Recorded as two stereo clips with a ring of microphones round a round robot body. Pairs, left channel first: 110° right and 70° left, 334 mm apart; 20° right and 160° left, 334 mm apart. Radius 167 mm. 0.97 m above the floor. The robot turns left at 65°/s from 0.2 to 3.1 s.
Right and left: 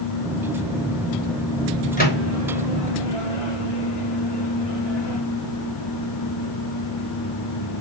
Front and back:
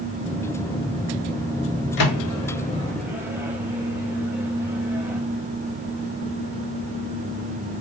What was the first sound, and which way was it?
A microwave, 45° right.